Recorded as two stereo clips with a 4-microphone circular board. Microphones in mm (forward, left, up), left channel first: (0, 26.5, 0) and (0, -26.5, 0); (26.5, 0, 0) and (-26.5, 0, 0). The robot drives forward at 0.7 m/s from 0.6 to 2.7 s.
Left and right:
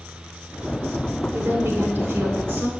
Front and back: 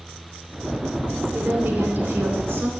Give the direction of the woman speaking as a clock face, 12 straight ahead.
4 o'clock.